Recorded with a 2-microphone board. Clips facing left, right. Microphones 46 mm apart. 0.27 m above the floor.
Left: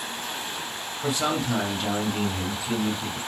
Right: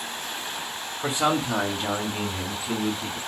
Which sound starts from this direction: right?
A man speaking, at 1.0 s.